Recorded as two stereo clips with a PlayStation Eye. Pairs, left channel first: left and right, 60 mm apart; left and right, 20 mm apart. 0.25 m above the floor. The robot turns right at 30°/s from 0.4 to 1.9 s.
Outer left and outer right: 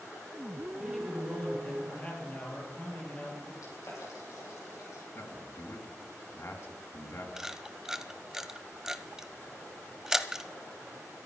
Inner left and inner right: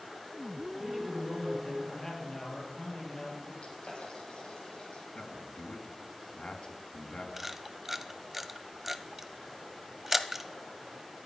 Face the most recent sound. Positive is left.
turn(degrees=-10)  # may be behind; listen again after turning